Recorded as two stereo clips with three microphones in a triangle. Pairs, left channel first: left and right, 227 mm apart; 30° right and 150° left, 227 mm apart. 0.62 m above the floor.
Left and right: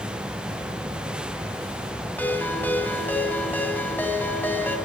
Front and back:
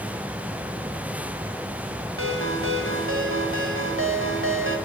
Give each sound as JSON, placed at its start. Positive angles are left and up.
{"t": 2.2, "sound": "a ringtone", "azimuth_deg": 170, "distance_m": 3.0}